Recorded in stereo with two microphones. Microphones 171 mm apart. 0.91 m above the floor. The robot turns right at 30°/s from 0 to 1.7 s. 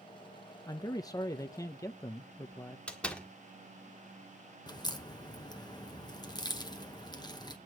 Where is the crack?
25° left (ahead or behind), 0.9 m.